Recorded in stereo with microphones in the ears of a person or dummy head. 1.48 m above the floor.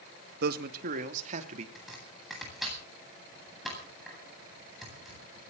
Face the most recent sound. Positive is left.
turn(degrees=0)  # may be behind; listen again after turning